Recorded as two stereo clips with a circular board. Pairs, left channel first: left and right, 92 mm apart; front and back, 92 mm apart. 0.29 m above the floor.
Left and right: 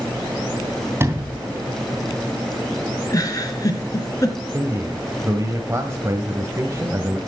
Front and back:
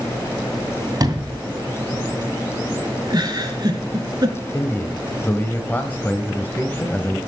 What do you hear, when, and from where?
1.0 s a sliding door: 145° right, 2.5 m
3.1 s a giggle: 140° left, 2.5 m
4.5 s a man speaking: 55° right, 1.2 m